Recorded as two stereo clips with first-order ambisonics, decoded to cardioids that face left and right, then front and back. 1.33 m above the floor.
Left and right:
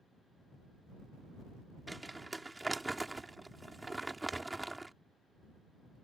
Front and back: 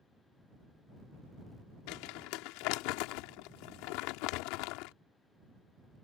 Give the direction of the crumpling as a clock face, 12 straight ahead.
12 o'clock.